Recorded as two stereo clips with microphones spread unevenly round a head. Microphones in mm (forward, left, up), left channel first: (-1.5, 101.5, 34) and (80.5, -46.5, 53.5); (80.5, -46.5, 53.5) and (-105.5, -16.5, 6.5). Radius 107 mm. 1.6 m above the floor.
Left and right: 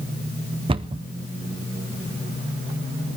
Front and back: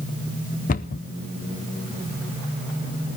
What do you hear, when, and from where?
0.7 s a cupboard door: 15° right, 0.5 m